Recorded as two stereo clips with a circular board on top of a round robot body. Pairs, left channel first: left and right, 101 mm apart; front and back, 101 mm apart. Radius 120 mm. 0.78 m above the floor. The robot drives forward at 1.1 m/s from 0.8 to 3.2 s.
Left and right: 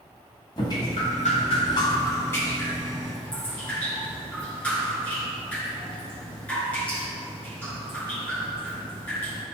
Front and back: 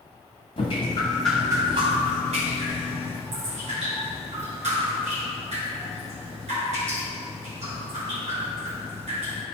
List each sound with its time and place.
0.6 s dripping: 40° left, 0.9 m; by 9.4 s 170° left, 2 m